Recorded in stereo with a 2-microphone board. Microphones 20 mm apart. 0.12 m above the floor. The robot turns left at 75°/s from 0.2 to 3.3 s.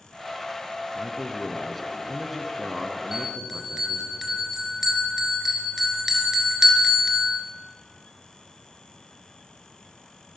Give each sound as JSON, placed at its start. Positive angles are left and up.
{"t": 0.9, "sound": "a man speaking", "side_deg": 20, "distance_m": 1.1}
{"t": 3.1, "sound": "a bell", "side_deg": -25, "distance_m": 1.9}